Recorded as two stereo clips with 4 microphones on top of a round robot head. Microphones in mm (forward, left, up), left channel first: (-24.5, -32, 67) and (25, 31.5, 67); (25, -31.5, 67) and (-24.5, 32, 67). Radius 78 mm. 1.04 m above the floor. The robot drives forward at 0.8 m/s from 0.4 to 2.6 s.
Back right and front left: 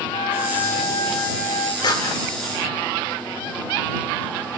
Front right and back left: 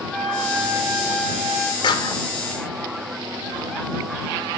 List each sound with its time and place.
0.1 s a flute: 140° right, 4.5 m; by 1.7 s 145° right, 5.5 m
1.8 s a clap: 90° right, 2.5 m; by 2.2 s 95° right, 2.5 m